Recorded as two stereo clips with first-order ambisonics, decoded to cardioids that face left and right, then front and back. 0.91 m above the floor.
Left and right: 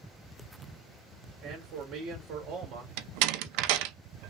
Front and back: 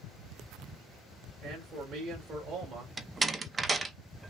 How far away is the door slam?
About 0.6 m.